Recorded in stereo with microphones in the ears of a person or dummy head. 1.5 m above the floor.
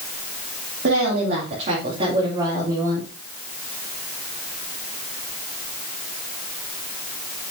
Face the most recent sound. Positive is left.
turn(degrees=-15)  # may be behind; listen again after turning